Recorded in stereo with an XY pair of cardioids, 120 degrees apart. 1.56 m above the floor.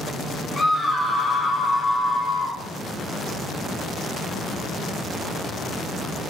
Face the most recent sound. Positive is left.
turn(degrees=15)